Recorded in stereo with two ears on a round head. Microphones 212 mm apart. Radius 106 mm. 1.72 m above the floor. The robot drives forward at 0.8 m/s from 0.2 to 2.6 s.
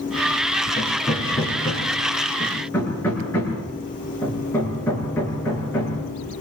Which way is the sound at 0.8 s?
10° left (ahead or behind).